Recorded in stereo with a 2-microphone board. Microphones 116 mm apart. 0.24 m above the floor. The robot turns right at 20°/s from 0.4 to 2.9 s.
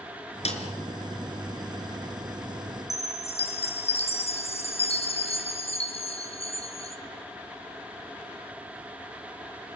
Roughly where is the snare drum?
Left.